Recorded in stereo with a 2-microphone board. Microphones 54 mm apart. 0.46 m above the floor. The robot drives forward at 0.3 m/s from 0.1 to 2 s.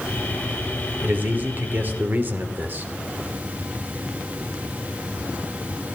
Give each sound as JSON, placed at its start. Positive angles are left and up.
{"t": 1.0, "sound": "a man speaking", "side_deg": -35, "distance_m": 1.5}